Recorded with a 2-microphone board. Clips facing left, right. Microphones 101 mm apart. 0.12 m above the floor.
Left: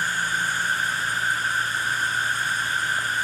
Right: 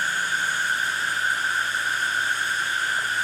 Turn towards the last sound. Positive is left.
turn(degrees=45)  # may be behind; listen again after turning